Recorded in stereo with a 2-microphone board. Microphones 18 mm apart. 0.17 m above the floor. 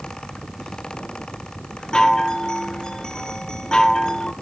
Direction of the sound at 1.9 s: 45° left (ahead or behind).